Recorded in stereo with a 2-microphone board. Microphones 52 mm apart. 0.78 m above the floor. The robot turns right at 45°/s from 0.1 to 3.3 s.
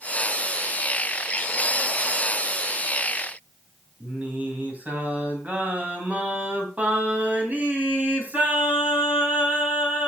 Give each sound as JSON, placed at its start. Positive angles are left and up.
{"t": 4.0, "sound": "singing", "side_deg": -30, "distance_m": 3.0}